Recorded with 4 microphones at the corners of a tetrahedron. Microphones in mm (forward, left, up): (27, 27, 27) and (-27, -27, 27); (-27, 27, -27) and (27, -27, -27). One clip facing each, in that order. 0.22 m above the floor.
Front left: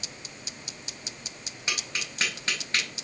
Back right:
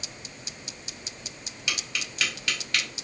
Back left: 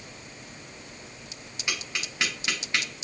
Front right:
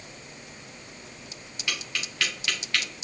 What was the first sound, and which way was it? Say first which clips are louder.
Tapping: even, even; 80° left.